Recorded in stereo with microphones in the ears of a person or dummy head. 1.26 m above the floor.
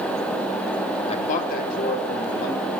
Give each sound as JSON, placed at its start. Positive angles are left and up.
{"t": 1.1, "sound": "a man speaking", "side_deg": 30, "distance_m": 0.7}